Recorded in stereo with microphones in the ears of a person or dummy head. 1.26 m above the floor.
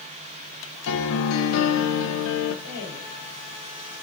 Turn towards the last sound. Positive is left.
turn(degrees=75)  # may be behind; listen again after turning